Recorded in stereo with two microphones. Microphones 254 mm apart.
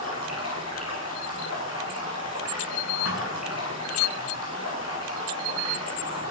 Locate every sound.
0.0 s running water: 80° left, 9 m
3.0 s a thud: 65° left (ahead or behind), 9.5 m